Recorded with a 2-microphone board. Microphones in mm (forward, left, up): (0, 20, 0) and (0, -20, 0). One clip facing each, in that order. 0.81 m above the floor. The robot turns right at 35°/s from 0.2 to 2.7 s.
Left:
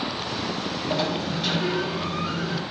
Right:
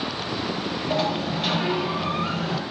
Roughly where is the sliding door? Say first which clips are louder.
Right 2 dB; behind.